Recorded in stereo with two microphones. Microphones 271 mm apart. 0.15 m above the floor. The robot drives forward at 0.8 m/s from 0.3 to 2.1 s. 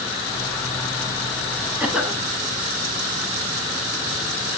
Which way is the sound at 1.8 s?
5° right (ahead or behind).